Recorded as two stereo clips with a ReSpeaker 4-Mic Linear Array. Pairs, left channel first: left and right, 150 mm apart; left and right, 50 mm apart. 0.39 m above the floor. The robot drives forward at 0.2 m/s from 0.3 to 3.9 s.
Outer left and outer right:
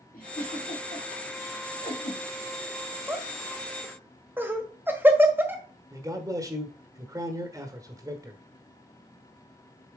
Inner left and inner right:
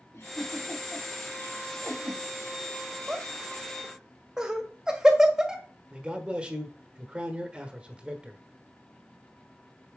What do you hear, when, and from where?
0.1 s a giggle: 65° left (ahead or behind), 4 m; by 2.2 s 60° left (ahead or behind), 4 m
3.1 s laughter: 15° right (ahead or behind), 1.7 m
5.9 s a man speaking: 20° right (ahead or behind), 1.1 m